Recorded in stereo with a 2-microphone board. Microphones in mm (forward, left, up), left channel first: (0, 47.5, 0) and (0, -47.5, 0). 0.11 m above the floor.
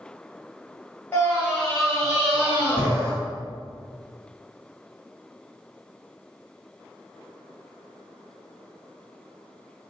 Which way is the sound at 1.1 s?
15° left (ahead or behind).